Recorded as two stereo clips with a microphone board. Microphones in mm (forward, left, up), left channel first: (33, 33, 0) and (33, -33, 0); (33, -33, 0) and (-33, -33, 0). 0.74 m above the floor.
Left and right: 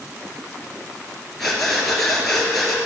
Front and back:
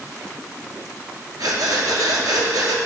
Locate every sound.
1.4 s breathing: 175° left, 2 m